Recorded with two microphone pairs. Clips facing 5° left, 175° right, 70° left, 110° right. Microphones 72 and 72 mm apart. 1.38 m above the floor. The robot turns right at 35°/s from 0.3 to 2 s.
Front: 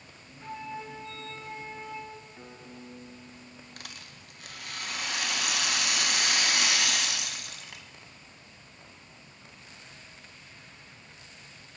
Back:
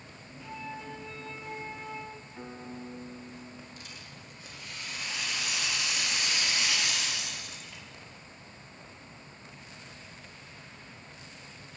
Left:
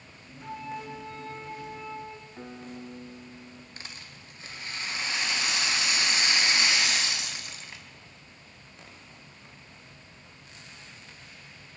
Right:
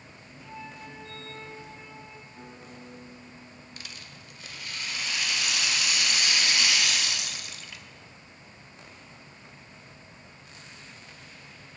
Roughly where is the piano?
Behind left.